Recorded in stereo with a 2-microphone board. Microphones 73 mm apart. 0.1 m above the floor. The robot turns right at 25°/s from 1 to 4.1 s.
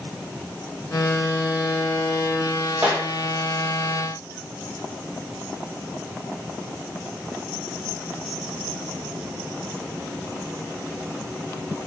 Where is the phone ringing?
No phone ringing in this recording.